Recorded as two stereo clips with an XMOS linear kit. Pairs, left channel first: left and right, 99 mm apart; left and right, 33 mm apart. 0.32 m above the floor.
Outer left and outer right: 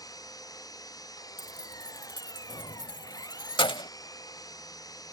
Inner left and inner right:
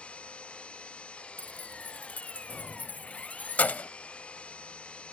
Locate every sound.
0.0 s an engine running: 35° left (ahead or behind)
1.4 s keys jangling: 50° left (ahead or behind)